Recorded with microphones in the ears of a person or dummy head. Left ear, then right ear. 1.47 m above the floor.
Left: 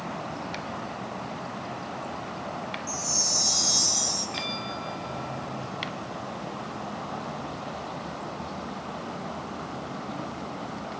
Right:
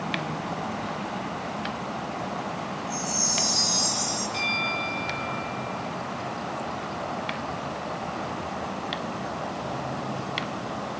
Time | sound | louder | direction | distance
2.9 | a chime | left 1 dB | 65° left (ahead or behind) | 6.5 m
4.3 | a bell | right 6 dB | 20° left (ahead or behind) | 4.5 m